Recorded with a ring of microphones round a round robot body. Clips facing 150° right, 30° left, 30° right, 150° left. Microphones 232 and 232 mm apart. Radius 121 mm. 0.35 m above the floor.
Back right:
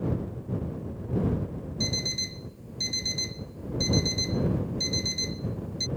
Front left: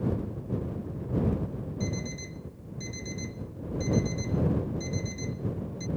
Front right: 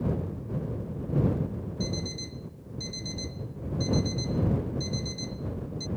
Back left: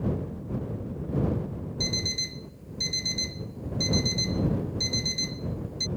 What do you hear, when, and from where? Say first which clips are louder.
1.8 s an alarm clock: even, front right 3 dB; 170° left